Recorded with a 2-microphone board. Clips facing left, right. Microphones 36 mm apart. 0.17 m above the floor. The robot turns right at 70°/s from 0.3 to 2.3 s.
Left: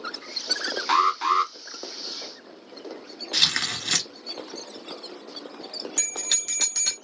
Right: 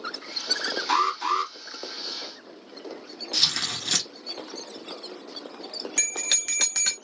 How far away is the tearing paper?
About 0.8 m.